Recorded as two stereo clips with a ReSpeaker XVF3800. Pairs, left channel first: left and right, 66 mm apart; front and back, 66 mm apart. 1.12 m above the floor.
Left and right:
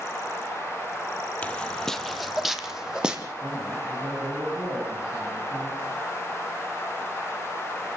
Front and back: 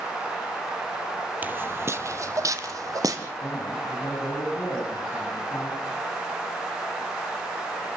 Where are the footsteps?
145° left, 1.3 m; by 3.2 s 165° right, 2.5 m.